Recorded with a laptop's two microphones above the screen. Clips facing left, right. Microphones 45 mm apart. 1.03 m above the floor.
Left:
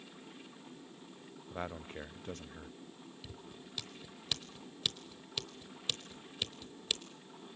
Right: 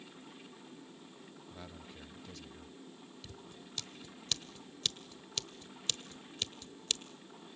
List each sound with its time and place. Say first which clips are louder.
1.5 s a man speaking: left 11 dB; 45° left (ahead or behind), 0.8 m
3.2 s scissors: left 1 dB; 10° left (ahead or behind), 1.0 m